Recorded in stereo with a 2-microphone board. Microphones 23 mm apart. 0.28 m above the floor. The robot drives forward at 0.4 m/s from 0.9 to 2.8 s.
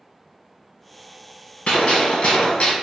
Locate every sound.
1.7 s a gunshot: 60° left (ahead or behind), 1.1 m; by 2.7 s 65° left (ahead or behind), 1.0 m